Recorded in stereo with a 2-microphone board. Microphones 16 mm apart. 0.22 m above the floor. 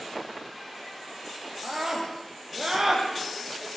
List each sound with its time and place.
1.6 s a scream: 30° right (ahead or behind), 9.5 m; by 3.7 s 20° right (ahead or behind), 10.5 m